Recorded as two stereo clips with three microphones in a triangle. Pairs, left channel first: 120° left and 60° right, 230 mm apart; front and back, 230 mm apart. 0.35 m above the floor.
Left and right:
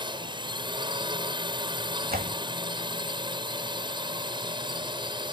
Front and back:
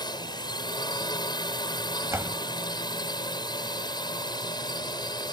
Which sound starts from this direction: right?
A door slam, at 2.1 s.